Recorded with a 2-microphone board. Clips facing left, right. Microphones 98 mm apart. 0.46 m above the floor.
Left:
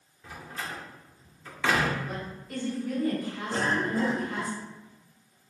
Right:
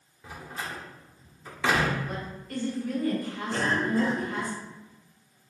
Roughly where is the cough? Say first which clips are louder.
Right 1 dB; left.